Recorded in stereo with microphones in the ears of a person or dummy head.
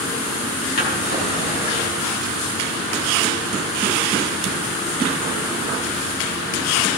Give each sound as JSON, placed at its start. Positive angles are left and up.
{"t": 0.8, "sound": "a drawer", "side_deg": 55, "distance_m": 4.5}